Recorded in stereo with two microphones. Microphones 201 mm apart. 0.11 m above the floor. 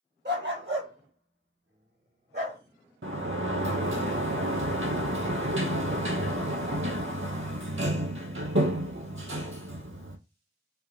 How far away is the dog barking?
About 1.2 m.